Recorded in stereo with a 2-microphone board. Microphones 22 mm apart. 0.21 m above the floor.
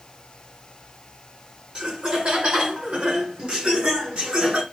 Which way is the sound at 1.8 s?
55° right (ahead or behind).